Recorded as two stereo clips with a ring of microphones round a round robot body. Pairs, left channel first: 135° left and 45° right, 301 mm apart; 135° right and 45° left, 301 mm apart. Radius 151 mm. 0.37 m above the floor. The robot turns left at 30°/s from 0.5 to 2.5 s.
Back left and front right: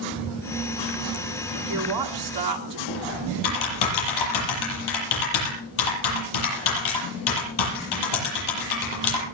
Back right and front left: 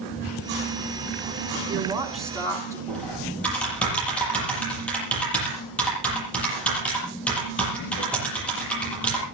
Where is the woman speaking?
25° right, 4 m; by 2.8 s 55° right, 4 m.